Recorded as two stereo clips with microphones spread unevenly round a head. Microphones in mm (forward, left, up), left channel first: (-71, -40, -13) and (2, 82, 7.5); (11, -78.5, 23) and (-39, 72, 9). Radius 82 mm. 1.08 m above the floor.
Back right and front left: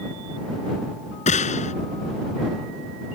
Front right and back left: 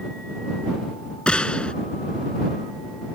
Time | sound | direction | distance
1.3 | a gunshot | 155° right | ?